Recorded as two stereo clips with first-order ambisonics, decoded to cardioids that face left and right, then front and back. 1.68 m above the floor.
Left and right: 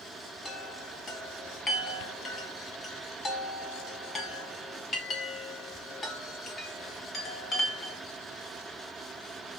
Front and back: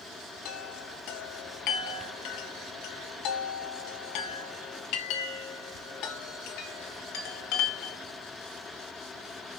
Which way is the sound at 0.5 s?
20° left.